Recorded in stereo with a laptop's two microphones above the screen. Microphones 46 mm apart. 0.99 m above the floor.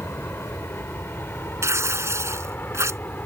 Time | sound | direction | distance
0.0 | an aircraft | 55° left (ahead or behind) | ?
1.6 | tearing paper | 75° right (ahead or behind) | ?